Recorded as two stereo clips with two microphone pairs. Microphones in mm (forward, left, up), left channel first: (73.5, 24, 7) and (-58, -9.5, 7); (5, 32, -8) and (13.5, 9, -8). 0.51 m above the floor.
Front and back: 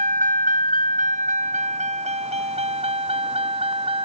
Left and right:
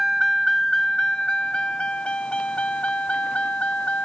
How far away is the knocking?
I don't hear knocking.